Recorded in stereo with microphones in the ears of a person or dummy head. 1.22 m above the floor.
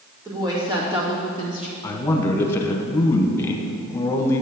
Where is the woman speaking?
20° right (ahead or behind), 2.0 m; by 1.7 s 45° right (ahead or behind), 1.6 m.